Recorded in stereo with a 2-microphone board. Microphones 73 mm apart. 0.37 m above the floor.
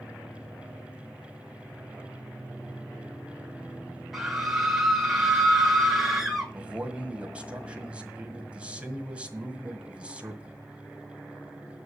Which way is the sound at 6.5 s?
15° right (ahead or behind).